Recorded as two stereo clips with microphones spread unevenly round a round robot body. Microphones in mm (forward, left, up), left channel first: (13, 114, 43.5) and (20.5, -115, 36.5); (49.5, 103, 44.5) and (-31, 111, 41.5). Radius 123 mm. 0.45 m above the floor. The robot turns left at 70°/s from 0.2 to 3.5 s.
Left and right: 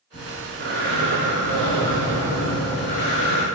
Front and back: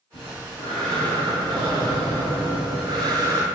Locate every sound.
0.1 s breathing: 20° right, 6 m; by 3.5 s 115° left, 6 m